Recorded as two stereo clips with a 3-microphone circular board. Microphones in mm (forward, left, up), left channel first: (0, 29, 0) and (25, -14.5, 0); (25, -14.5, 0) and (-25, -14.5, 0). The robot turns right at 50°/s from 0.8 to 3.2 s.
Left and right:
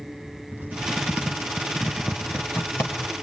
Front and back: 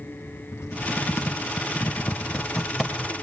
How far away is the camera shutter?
No camera shutter in this recording.